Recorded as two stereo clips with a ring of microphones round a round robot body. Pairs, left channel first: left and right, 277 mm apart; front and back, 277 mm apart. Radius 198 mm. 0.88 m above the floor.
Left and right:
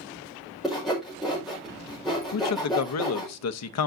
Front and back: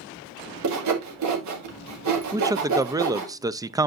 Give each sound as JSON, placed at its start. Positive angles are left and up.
{"t": 0.6, "sound": "sawing", "azimuth_deg": 180, "distance_m": 1.8}
{"t": 2.3, "sound": "a man speaking", "azimuth_deg": 100, "distance_m": 0.6}